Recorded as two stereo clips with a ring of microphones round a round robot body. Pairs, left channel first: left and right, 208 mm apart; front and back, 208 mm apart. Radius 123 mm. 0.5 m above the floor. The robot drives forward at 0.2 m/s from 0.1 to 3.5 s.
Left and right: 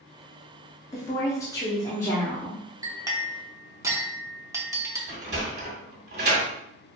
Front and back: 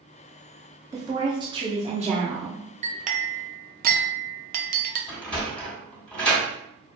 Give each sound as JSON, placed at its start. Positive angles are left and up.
{"t": 0.9, "sound": "a woman speaking", "azimuth_deg": 135, "distance_m": 0.7}
{"t": 2.8, "sound": "a clink", "azimuth_deg": -155, "distance_m": 0.6}
{"t": 5.1, "sound": "a sliding door", "azimuth_deg": -80, "distance_m": 1.8}